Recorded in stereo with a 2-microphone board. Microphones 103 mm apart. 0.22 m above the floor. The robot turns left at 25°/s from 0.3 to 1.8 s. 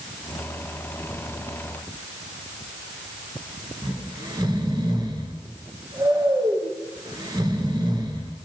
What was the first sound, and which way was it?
Snoring, 45° right (ahead or behind).